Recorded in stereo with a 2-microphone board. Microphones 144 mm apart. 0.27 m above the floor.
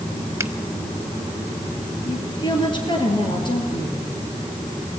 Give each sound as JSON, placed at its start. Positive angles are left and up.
{"t": 0.4, "sound": "a finger snap", "side_deg": -20, "distance_m": 1.0}
{"t": 2.0, "sound": "a woman speaking", "side_deg": 35, "distance_m": 5.0}